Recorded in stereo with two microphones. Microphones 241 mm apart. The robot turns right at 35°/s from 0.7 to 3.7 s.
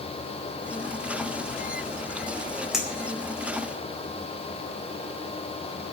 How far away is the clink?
About 4 m.